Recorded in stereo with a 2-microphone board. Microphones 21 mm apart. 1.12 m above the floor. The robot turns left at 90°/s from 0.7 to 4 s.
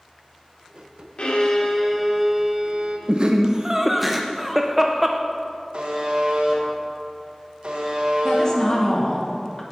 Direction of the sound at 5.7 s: 55° right (ahead or behind).